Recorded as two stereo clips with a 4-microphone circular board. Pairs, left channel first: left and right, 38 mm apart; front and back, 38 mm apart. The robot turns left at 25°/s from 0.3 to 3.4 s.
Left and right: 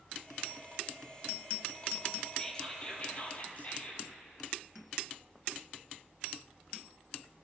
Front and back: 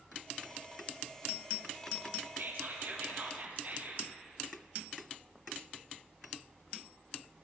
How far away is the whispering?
About 4 m.